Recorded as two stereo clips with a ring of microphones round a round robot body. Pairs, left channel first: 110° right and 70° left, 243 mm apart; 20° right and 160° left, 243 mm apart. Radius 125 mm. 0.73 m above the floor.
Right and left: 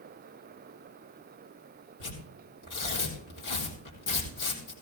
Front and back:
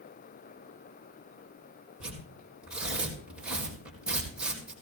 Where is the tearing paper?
115° right, 4.5 m.